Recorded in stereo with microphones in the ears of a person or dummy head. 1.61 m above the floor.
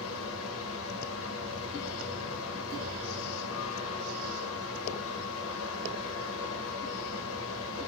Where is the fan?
70° left (ahead or behind), 0.8 m.